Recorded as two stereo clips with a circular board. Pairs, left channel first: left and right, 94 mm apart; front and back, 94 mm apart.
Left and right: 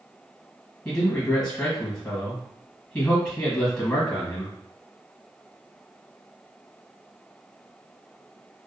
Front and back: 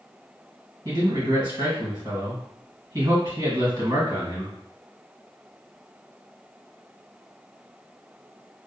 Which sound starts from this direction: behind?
A man speaking, at 0.8 s.